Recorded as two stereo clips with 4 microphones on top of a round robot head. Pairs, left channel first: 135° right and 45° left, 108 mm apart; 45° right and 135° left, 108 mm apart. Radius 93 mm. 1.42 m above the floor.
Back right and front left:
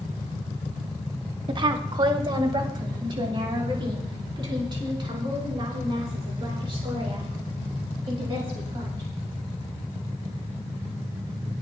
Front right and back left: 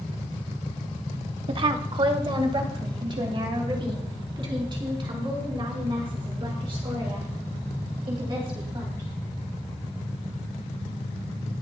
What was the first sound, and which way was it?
A woman speaking, 90° left.